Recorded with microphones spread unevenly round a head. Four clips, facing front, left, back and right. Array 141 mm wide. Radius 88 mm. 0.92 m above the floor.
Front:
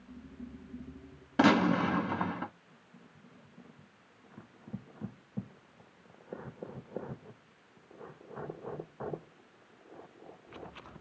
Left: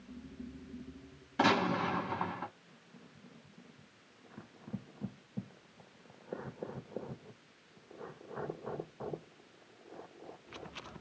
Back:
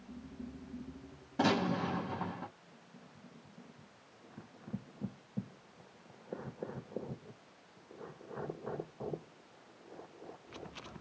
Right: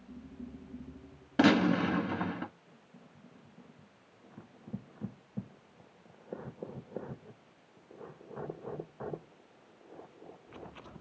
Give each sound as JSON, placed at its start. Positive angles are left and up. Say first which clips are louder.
{"t": 1.4, "sound": "a gunshot", "louder": "right 4 dB, front 6 dB", "azimuth_deg": -50, "distance_m": 1.9}